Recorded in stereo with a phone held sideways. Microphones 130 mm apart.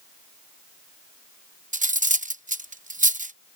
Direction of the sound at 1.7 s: 75° right (ahead or behind).